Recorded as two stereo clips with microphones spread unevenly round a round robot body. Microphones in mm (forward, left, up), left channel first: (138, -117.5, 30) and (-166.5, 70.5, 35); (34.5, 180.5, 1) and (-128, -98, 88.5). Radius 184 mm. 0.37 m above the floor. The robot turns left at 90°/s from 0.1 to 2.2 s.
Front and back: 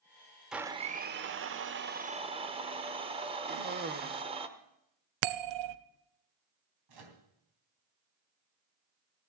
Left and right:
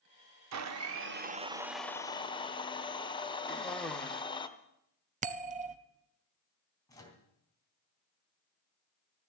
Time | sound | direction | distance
0.5 | a blender | 125° right | 0.9 m
3.5 | a cough | 115° left | 1.0 m
5.2 | a bell | 170° left | 0.7 m
6.9 | a microwave | 135° left | 3 m